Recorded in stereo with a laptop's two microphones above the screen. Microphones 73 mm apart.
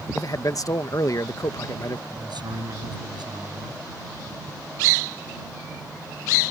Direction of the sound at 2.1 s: 85° right.